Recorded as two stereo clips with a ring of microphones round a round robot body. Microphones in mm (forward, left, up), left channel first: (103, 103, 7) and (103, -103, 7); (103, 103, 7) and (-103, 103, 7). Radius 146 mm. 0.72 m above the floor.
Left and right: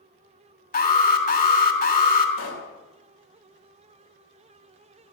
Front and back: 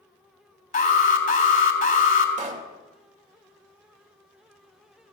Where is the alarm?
45° left, 3.5 m.